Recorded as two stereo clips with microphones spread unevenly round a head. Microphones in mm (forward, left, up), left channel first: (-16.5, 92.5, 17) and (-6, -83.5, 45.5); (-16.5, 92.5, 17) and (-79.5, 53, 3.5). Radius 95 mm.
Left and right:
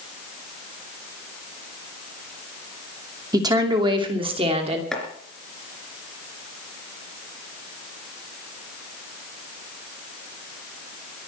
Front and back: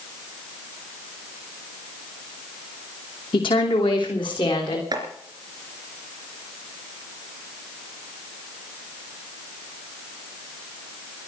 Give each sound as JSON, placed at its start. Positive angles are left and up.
{"t": 3.3, "sound": "a woman speaking", "azimuth_deg": -15, "distance_m": 2.5}
{"t": 4.9, "sound": "chopping", "azimuth_deg": -175, "distance_m": 3.0}